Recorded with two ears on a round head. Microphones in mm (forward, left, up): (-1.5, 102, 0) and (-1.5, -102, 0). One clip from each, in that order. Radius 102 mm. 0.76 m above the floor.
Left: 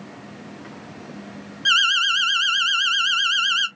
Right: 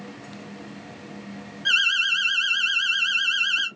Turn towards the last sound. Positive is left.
turn(degrees=25)  # may be behind; listen again after turning